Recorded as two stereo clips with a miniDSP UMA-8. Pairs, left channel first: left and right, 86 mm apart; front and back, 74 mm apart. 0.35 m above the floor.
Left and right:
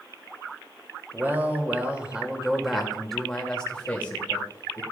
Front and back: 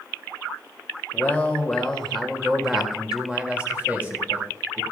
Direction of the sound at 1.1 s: 45° right.